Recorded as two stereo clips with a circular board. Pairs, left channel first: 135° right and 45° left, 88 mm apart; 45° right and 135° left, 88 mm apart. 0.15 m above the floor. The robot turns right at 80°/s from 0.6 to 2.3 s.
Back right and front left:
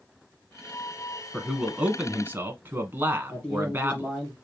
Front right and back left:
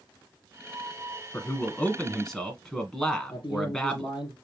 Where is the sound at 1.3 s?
45° right, 1.2 m; by 4.1 s 30° left, 1.2 m.